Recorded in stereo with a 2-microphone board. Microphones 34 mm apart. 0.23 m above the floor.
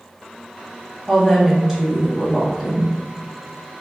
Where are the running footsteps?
I don't hear running footsteps.